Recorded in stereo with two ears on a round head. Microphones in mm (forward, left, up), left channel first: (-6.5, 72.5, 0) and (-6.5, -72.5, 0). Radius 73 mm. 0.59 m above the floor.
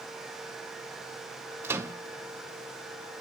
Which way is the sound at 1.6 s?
15° right (ahead or behind).